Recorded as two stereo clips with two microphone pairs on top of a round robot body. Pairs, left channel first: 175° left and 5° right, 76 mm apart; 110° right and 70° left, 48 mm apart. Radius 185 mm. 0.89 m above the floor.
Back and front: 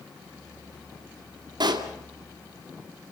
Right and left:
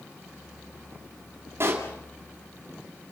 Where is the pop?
25° left, 2.5 m.